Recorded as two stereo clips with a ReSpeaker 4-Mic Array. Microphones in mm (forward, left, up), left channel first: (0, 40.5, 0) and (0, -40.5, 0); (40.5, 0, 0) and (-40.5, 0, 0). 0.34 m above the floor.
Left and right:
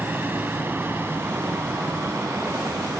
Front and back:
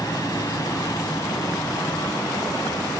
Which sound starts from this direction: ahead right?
A helicopter, at 0.0 s.